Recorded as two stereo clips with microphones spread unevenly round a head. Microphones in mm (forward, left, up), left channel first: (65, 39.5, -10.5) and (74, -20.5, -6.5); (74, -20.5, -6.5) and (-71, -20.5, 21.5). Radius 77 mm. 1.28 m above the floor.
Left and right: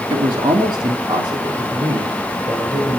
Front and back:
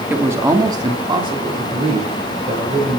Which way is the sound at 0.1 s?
105° right.